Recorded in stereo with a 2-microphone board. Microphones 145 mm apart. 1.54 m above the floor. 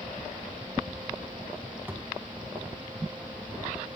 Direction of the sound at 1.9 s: 15° right (ahead or behind).